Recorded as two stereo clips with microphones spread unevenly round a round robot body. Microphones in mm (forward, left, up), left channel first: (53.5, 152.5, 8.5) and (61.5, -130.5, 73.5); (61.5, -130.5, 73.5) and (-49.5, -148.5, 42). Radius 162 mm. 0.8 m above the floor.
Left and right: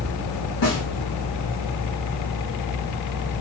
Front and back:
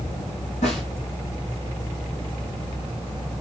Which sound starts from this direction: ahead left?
A snare drum, at 0.6 s.